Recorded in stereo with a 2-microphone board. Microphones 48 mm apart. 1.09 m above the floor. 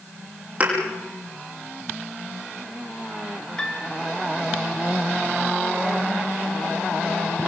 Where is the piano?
15° left (ahead or behind), 3 m.